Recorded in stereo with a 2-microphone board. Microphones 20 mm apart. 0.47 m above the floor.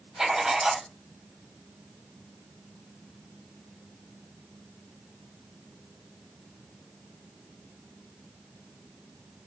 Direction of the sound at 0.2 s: 40° right (ahead or behind).